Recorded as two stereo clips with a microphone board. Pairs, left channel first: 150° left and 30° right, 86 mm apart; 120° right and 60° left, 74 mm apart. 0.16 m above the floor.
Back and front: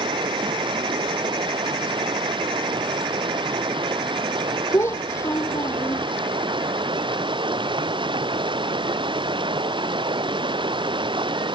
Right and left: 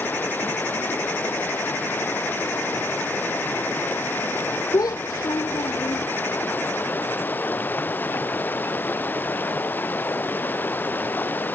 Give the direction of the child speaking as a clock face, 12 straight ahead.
5 o'clock.